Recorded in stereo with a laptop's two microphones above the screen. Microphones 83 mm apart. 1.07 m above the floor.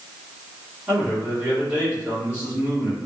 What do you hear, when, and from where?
0.9 s a man speaking: 15° right (ahead or behind), 1.4 m